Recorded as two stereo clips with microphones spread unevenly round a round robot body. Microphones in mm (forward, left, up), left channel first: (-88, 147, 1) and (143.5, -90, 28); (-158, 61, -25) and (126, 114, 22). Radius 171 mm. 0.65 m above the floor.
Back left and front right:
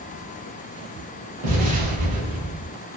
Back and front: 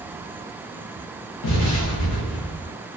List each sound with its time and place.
1.4 s an explosion: 115° right, 0.7 m